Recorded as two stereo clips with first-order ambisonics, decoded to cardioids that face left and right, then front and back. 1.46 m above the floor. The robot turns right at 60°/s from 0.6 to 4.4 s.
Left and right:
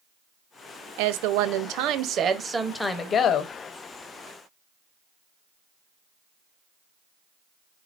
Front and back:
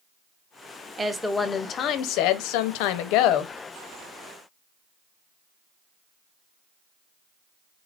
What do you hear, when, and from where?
1.0 s a woman speaking: 105° right, 0.7 m; by 3.5 s 45° left, 0.7 m